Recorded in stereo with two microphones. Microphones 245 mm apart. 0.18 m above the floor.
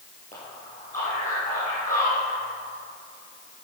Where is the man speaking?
30° left (ahead or behind), 4 m.